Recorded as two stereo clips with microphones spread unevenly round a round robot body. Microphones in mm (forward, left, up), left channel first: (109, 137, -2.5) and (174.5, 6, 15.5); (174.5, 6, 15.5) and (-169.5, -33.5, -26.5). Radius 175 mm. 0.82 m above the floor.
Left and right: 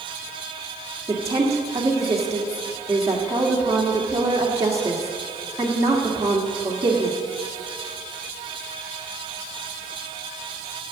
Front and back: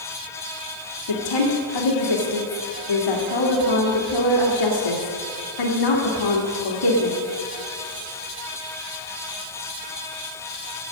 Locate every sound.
1.1 s a woman speaking: 10° left, 2 m